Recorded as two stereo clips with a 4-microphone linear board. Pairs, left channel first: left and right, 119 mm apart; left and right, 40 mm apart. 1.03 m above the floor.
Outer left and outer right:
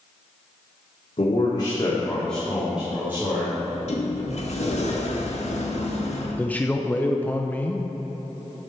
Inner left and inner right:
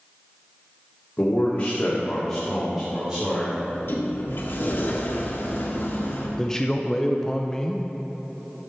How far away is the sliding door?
About 1.6 m.